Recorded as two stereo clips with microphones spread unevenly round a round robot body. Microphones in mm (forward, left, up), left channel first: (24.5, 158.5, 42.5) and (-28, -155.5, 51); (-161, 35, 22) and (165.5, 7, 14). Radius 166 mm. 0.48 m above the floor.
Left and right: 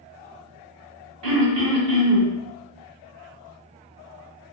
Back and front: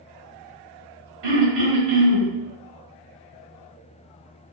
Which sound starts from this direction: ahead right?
Throat clearing, at 1.2 s.